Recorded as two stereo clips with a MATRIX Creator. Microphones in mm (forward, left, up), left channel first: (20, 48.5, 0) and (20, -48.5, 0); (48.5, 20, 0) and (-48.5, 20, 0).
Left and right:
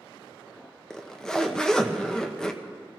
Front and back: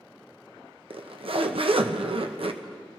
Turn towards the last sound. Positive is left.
turn(degrees=170)